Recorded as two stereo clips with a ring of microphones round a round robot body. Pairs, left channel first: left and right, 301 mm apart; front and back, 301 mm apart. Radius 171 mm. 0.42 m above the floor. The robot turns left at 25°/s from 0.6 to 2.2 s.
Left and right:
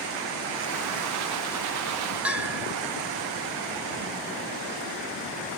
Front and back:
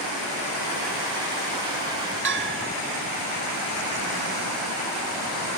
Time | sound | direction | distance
2.2 | a bell | 175° right | 1.1 m